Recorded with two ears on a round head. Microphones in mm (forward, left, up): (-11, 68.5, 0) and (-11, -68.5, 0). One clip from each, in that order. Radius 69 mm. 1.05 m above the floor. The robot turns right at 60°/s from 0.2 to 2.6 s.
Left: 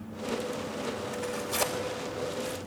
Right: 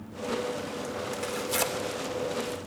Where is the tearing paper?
70° right (ahead or behind), 3 m; by 2.6 s 20° left (ahead or behind), 3 m.